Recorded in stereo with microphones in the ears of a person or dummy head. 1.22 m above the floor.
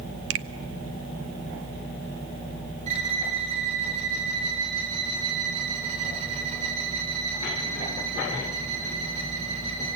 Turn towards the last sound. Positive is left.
turn(degrees=-45)  # may be behind; listen again after turning